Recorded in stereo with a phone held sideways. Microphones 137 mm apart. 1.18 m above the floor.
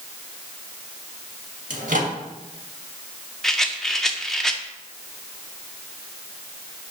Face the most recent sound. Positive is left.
turn(degrees=5)  # may be behind; listen again after turning